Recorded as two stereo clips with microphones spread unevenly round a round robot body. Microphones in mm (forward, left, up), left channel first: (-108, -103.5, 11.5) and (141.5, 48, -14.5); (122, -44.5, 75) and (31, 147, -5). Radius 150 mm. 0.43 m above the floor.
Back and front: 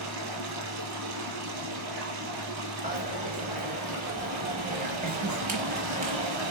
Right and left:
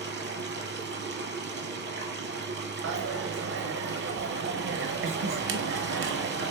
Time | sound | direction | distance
0.0 | running water | 70° left | 1.3 m
2.8 | a dropped coin | 95° left | 0.8 m